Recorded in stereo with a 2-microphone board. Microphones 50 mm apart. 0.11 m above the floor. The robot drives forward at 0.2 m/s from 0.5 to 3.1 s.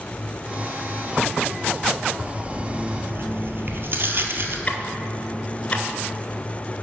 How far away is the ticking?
About 0.6 m.